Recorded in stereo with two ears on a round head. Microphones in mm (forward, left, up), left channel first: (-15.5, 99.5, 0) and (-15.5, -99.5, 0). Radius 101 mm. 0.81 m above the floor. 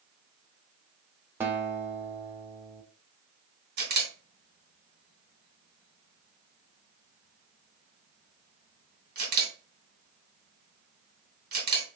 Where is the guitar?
10° right (ahead or behind), 0.7 m.